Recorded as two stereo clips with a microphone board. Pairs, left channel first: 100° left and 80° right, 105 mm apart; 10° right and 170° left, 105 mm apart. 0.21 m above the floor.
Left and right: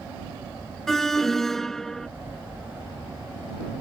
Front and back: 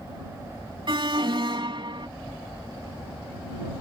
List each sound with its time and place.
0.9 s an alarm: 175° right